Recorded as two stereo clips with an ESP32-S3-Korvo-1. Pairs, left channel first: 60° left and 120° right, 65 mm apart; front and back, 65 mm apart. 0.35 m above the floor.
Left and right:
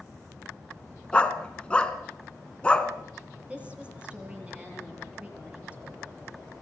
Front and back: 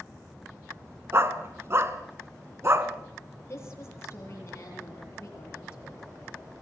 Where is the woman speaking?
50° right, 9 m.